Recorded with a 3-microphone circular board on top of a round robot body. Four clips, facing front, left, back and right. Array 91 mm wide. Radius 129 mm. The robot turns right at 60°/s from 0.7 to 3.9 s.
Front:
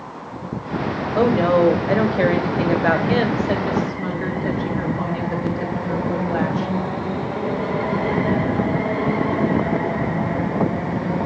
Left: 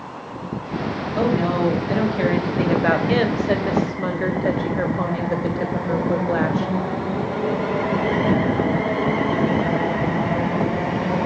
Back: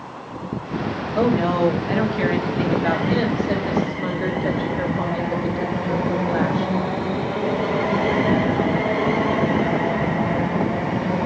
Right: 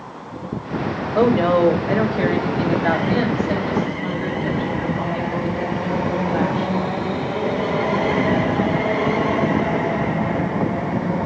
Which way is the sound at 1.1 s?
65° right.